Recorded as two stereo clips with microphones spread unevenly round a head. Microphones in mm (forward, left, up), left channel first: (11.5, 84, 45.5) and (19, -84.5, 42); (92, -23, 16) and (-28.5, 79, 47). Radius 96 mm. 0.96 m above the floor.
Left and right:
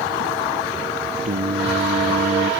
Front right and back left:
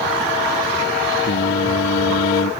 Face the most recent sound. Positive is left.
turn(degrees=-40)